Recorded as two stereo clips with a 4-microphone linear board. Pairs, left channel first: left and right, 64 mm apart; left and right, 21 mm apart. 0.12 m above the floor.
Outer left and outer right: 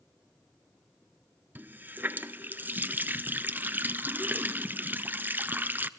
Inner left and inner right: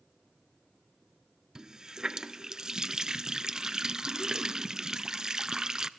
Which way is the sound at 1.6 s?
30° right (ahead or behind).